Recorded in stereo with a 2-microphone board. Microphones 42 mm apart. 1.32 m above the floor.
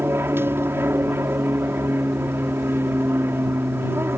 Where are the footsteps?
I don't hear footsteps.